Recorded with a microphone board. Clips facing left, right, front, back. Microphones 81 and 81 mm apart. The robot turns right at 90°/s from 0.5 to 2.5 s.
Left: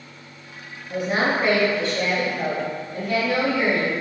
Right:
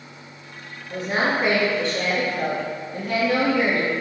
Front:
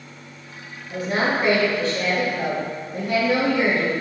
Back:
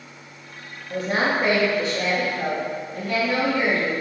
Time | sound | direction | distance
0.9 | a woman speaking | 160° left | 1.2 m